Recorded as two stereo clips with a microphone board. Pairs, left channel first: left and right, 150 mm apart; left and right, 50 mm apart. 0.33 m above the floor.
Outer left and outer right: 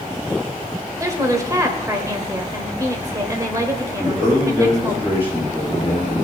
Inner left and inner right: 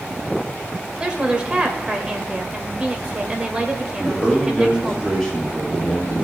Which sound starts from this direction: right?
A woman speaking, at 1.0 s.